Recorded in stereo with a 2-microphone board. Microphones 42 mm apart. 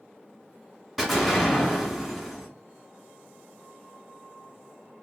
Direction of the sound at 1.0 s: 5° right (ahead or behind).